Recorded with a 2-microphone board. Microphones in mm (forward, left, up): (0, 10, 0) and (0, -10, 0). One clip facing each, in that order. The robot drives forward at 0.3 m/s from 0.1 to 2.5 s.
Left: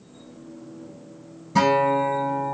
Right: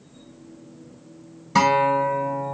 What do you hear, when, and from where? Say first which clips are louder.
1.6 s a guitar: right 1 dB; 30° right (ahead or behind), 1.8 m